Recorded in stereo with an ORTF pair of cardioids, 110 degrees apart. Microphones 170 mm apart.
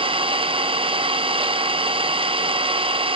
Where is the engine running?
35° right, 1.0 m.